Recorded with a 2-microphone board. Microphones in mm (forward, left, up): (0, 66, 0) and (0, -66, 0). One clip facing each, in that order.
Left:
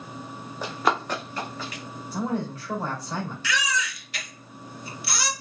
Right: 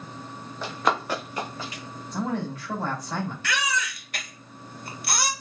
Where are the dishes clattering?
I don't hear dishes clattering.